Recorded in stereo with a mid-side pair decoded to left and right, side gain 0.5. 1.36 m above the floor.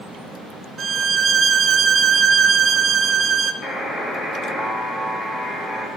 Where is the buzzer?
40° left, 2 m.